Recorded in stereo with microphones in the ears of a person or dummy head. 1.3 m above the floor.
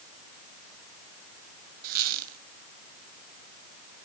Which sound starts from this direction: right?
A squeak, at 1.8 s.